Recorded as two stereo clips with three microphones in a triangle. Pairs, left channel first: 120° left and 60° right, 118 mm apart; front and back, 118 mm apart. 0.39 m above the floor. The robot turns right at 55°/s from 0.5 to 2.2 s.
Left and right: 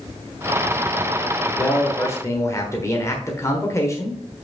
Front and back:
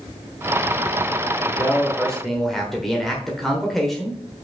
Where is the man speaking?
55° left, 1.2 m; by 4.2 s 90° left, 1.2 m.